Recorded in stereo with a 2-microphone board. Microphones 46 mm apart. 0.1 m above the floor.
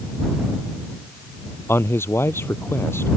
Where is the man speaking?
60° left (ahead or behind).